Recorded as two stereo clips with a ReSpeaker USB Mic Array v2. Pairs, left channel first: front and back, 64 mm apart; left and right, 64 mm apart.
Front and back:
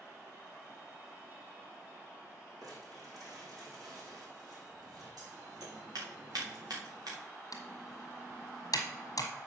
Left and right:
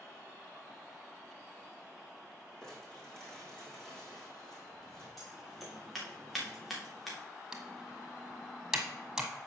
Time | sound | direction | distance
2.6 | crumpling | 170° left | 5.5 m
5.2 | scissors | straight behind | 3.5 m
7.5 | typing on a keyboard | 10° right | 1.4 m